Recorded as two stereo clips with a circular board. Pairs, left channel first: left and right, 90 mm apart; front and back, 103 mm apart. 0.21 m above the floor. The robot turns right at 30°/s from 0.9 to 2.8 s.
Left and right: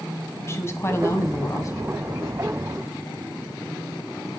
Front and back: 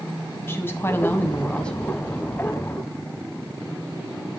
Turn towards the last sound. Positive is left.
turn(degrees=110)